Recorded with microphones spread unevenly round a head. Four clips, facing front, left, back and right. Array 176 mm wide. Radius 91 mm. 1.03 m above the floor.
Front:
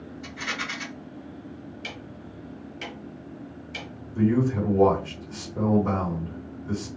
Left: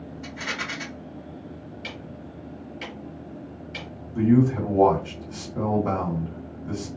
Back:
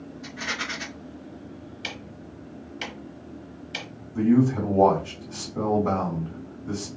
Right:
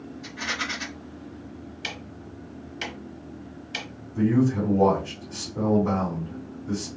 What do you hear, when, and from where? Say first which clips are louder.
0.2 s a rattle: right 1 dB, back 1 dB; 110° left, 1.5 m
1.8 s ticking: even, even; 130° right, 1.0 m
4.2 s a man speaking: left 2 dB, back 3 dB; 135° left, 2 m